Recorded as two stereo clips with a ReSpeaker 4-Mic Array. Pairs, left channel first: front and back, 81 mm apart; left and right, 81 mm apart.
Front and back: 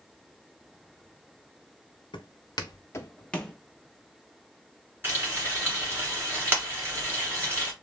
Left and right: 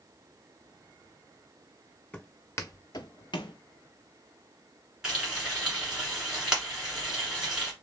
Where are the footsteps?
15° left, 0.9 m; by 3.5 s 90° left, 0.8 m.